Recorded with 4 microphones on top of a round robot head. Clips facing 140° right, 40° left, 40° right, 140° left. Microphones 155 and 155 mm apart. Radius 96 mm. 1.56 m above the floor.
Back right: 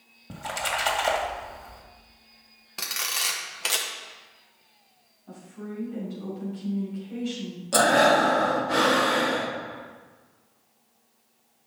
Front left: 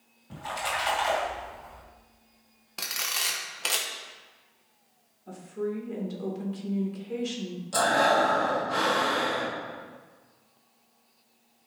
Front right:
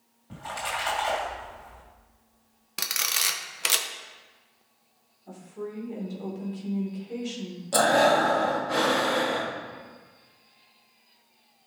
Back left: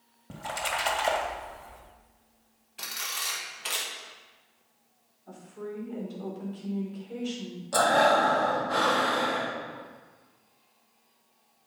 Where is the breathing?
105° right, 1.3 m.